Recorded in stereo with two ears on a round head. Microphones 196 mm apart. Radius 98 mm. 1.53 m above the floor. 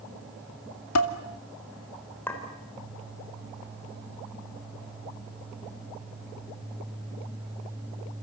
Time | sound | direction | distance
0.9 | dishes clattering | 70° left (ahead or behind) | 2 m
2.3 | a clink | 10° left (ahead or behind) | 4 m